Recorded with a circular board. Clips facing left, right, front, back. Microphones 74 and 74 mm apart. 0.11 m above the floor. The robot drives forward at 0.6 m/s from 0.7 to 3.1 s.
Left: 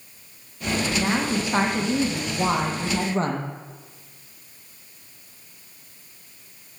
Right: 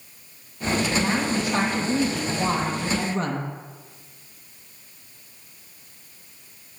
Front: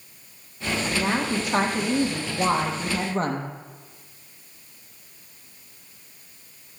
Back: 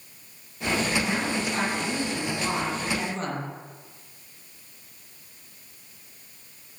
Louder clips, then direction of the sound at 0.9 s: Even, front 2 dB; 25° left.